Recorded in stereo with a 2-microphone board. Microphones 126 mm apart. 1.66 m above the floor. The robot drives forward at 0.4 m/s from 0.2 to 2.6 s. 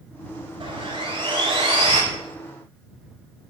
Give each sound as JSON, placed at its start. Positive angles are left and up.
{"t": 0.6, "sound": "sawing", "side_deg": -45, "distance_m": 9.0}